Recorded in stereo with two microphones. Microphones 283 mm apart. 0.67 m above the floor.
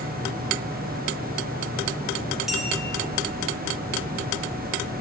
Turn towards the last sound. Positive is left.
turn(degrees=0)  # may be behind; listen again after turning